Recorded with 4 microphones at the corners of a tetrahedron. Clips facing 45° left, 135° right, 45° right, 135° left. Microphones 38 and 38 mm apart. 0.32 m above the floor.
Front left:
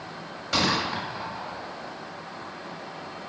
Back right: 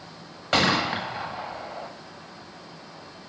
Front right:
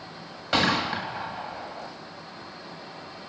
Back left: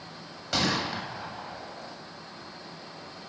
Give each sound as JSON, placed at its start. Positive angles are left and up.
{"t": 0.5, "sound": "a gunshot", "azimuth_deg": -100, "distance_m": 1.3}